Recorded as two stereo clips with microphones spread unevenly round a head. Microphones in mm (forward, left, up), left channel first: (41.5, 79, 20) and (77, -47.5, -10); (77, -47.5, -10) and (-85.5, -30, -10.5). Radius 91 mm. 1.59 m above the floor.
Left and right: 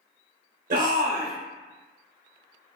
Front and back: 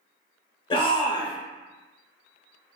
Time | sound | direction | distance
0.7 | a shout | 65° right | 0.8 m